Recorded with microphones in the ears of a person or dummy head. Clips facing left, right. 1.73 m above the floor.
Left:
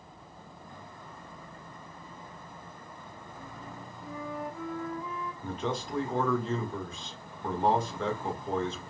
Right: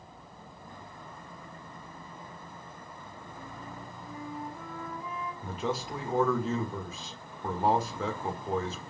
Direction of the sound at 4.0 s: 65° left (ahead or behind).